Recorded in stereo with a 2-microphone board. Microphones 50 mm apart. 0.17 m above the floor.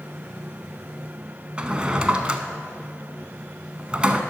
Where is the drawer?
20° right (ahead or behind), 0.5 m.